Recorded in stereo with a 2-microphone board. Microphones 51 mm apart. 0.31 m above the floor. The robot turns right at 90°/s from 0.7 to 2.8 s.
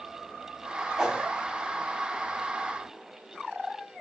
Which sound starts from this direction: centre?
A whoosh, at 1.0 s.